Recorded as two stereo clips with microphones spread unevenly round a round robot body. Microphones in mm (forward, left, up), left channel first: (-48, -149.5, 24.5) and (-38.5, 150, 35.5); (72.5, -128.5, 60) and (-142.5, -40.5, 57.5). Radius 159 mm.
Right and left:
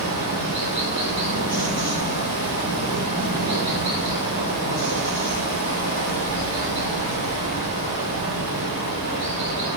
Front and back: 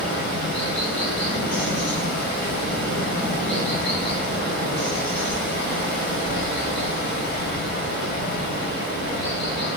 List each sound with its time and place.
0.0 s running water: 25° left, 2.0 m